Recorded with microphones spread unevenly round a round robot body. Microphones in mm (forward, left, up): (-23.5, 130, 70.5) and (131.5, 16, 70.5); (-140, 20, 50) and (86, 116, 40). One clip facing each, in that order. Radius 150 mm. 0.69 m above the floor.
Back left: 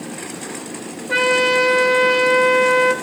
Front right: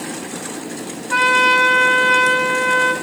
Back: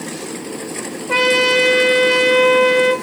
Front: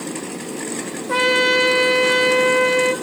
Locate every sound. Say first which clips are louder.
1.1 s a trumpet: back left 4 dB, back 3 dB; 150° left, 1.8 m